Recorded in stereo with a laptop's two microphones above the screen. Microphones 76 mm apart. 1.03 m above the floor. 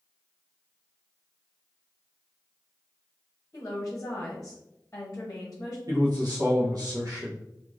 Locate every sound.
3.5 s a woman speaking: 35° left (ahead or behind), 0.9 m
5.9 s a man speaking: 60° right (ahead or behind), 0.8 m